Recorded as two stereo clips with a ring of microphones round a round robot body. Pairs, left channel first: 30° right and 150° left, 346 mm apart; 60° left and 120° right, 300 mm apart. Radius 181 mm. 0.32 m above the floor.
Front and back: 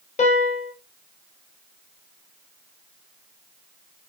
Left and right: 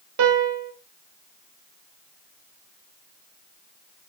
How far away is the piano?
About 0.8 m.